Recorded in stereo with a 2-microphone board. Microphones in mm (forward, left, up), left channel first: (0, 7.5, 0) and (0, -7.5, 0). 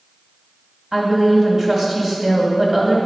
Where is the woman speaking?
40° right (ahead or behind), 1.7 m.